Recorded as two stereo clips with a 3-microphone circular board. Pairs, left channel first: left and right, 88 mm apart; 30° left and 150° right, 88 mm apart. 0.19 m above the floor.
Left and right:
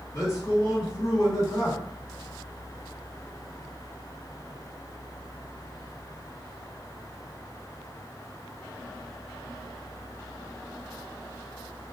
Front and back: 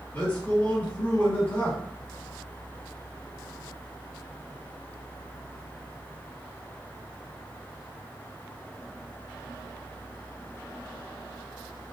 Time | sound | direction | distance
0.1 | a man speaking | 85° left | 1.7 m